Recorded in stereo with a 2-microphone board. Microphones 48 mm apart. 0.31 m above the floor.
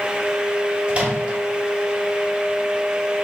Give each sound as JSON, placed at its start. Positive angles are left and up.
{"t": 0.9, "sound": "a microwave", "side_deg": -25, "distance_m": 0.9}